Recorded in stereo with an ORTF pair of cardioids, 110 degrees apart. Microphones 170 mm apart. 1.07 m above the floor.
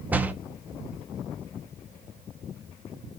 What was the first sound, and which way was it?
A door slam, 10° right.